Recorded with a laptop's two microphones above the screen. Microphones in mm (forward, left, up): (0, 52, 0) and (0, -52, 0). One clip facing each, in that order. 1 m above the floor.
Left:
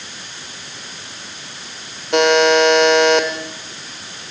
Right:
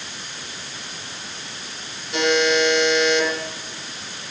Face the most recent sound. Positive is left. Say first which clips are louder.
# left 6 dB
turn(degrees=70)  # may be behind; listen again after turning